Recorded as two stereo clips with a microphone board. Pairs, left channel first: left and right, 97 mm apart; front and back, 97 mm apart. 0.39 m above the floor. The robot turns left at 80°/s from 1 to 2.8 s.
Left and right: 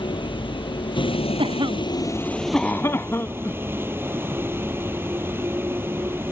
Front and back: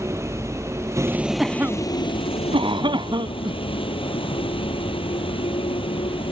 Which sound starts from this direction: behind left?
A vehicle, at 0.0 s.